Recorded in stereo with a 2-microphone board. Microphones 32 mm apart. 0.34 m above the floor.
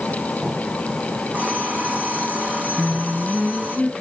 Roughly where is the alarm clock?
Right.